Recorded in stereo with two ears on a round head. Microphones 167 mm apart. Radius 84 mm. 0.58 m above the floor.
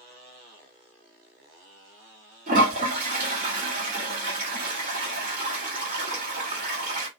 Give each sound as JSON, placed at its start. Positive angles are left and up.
{"t": 2.5, "sound": "a toilet flushing", "side_deg": -45, "distance_m": 1.8}